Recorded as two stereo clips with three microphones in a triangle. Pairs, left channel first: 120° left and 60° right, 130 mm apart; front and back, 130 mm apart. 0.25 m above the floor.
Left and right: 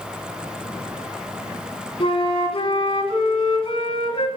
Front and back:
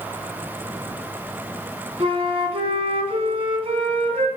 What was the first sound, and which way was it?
A flute, 155° left.